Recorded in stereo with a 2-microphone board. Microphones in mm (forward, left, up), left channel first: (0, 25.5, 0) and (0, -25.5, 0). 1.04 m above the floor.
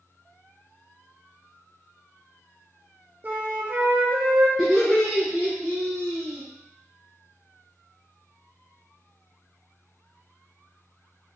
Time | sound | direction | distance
3.2 | a flute | 35° right (ahead or behind) | 0.6 m
4.6 | laughter | 5° right (ahead or behind) | 0.8 m